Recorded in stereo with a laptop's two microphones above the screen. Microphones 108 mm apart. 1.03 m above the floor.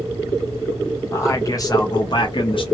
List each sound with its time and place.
1.1 s a man speaking: 25° left (ahead or behind), 1.3 m; by 2.6 s 50° left (ahead or behind), 0.9 m